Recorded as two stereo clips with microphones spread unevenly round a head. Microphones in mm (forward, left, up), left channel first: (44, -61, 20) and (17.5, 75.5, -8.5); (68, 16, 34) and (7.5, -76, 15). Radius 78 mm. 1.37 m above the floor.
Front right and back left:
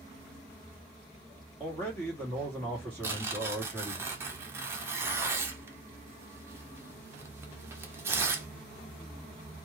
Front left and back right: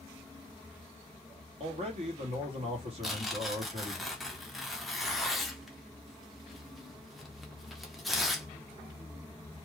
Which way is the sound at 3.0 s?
155° left.